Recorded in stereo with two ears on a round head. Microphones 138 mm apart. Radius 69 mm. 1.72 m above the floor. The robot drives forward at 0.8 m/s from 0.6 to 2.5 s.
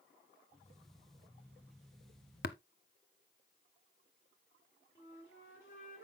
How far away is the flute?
About 4.5 m.